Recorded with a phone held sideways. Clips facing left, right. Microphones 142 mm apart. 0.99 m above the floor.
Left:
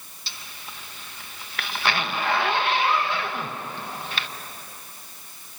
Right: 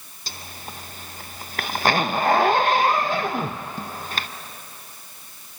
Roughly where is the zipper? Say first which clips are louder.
Right 5 dB; right.